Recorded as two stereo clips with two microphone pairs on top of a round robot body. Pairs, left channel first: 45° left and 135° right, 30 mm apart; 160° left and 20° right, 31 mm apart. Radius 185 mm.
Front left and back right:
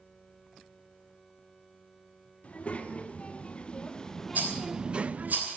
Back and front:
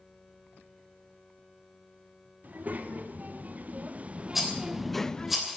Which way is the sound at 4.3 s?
105° right.